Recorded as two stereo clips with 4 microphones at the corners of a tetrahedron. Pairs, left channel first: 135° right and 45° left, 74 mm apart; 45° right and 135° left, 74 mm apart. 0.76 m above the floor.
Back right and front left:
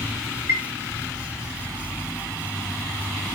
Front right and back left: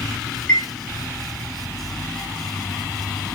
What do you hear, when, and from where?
0.5 s a chime: 25° left, 1.0 m